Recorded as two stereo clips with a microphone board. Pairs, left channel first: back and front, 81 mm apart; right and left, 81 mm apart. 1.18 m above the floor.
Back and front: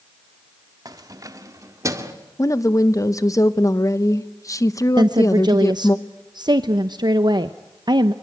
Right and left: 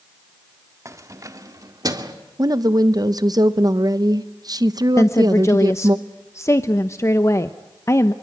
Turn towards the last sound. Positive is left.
turn(degrees=-35)